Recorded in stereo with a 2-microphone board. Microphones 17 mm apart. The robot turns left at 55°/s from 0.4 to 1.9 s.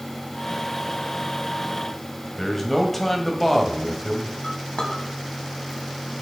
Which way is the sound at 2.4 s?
15° left (ahead or behind).